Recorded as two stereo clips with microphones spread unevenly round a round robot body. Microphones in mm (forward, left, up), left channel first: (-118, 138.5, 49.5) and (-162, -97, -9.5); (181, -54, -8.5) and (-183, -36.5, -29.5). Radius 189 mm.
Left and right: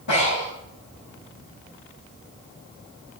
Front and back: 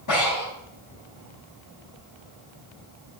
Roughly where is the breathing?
Ahead left.